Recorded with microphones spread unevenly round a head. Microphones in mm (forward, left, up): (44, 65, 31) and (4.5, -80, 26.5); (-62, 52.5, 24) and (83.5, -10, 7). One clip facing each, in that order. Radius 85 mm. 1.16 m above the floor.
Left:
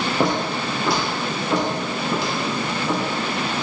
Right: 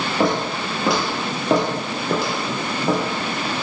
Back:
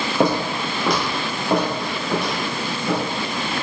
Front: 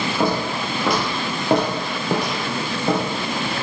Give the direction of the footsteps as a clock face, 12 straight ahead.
7 o'clock.